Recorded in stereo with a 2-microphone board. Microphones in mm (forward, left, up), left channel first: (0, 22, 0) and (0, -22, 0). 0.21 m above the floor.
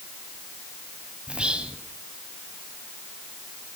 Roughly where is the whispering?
Right.